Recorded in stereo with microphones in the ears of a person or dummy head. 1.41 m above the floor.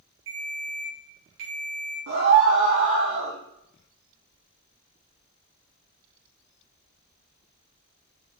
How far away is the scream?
About 1.4 m.